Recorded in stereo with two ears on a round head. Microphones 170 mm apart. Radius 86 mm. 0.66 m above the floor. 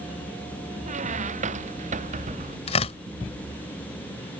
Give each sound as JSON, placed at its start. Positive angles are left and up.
{"t": 0.9, "sound": "a squeak", "side_deg": -40}
{"t": 2.7, "sound": "tearing paper", "side_deg": 35}